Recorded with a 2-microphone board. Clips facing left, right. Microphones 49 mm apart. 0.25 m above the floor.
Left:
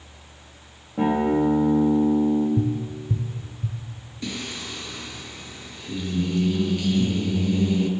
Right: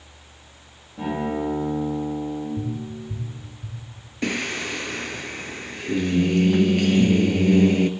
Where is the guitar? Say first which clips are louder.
Left 5 dB; 45° left (ahead or behind), 5.5 m.